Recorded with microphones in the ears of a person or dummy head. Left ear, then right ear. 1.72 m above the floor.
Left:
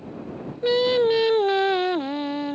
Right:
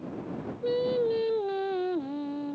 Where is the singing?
30° left (ahead or behind).